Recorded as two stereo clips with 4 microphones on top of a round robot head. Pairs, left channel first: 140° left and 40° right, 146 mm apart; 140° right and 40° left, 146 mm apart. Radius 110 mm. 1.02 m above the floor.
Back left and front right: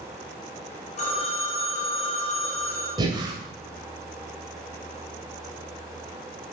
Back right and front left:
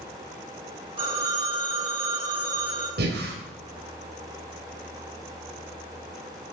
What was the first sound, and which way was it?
A phone ringing, 95° left.